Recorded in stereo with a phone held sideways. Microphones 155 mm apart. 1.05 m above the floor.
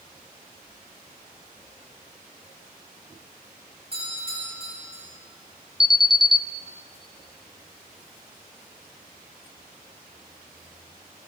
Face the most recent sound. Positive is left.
turn(degrees=25)  # may be behind; listen again after turning